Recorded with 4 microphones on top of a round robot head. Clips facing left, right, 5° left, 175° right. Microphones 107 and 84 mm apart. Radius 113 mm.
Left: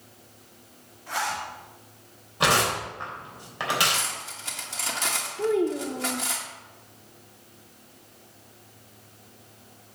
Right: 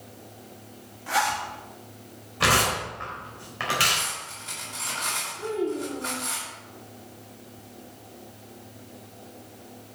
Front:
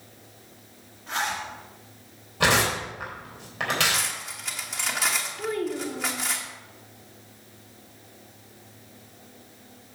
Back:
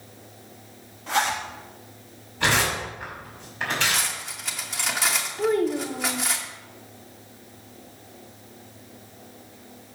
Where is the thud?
I don't hear a thud.